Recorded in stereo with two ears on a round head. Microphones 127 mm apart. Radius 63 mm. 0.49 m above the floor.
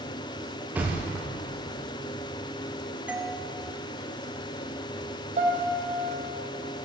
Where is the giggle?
No giggle in this recording.